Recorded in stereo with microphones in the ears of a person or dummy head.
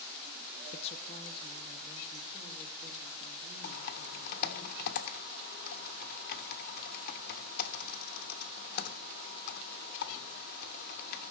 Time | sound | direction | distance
0.7 | a woman speaking | 35° left (ahead or behind) | 0.5 m
3.6 | typing on a keyboard | 50° left (ahead or behind) | 1.1 m